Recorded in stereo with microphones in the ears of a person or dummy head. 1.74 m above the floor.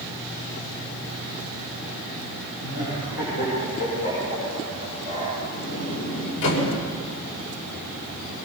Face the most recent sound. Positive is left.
turn(degrees=65)  # may be behind; listen again after turning